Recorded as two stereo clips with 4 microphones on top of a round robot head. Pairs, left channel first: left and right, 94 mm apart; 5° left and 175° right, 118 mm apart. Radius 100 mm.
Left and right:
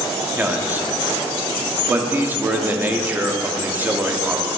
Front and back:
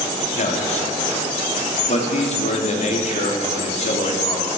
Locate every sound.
0.4 s a man speaking: 20° right, 1.2 m